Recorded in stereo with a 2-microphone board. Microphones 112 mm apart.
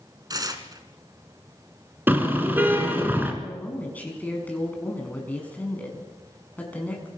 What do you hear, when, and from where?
0.3 s tearing paper: 35° right (ahead or behind), 2 m
2.1 s a car horn: 15° right (ahead or behind), 3.5 m
3.4 s a woman speaking: 15° left (ahead or behind), 6.5 m